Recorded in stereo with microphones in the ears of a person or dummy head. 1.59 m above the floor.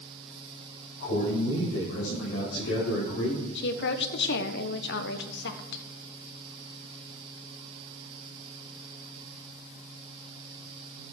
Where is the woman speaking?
65° left (ahead or behind), 1.2 m.